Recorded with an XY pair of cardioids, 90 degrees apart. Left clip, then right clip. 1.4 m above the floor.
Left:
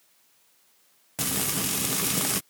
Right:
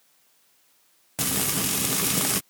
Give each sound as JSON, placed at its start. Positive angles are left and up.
{"t": 1.2, "sound": "frying", "azimuth_deg": -15}